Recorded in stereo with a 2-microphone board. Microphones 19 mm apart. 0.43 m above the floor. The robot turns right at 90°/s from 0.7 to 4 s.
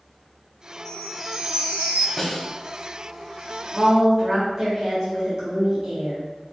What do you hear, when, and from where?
0.8 s a chime: 160° left, 0.7 m; by 2.1 s 90° right, 0.7 m
2.2 s a snare drum: 25° left (ahead or behind), 0.9 m; by 2.5 s 50° left (ahead or behind), 0.9 m
3.7 s a woman speaking: 40° right (ahead or behind), 1.4 m; by 6.2 s 30° right (ahead or behind), 1.4 m